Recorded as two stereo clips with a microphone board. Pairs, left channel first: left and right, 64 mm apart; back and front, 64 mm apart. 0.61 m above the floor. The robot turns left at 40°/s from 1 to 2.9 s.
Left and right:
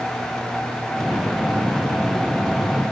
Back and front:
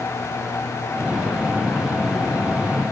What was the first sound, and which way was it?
Only background noise.